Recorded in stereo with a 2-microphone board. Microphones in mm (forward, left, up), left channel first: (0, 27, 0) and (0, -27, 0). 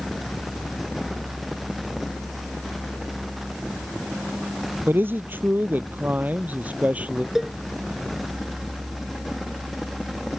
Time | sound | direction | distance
4.9 | a man speaking | 40° right (ahead or behind) | ?
7.3 | a cowbell | 10° right (ahead or behind) | ?